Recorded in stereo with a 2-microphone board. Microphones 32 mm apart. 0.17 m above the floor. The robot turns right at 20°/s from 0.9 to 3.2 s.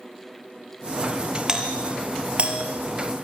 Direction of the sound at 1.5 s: 20° right (ahead or behind).